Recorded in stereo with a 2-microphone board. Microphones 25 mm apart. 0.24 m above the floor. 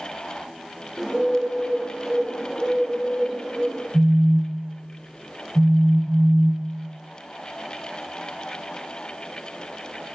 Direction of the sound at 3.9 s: 55° right (ahead or behind).